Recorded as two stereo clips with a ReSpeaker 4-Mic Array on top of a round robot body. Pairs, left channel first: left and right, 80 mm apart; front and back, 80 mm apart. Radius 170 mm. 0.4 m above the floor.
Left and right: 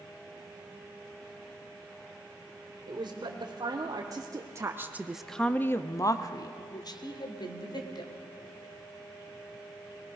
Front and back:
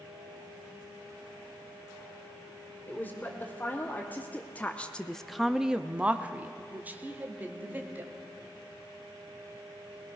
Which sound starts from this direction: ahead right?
A woman speaking, at 2.9 s.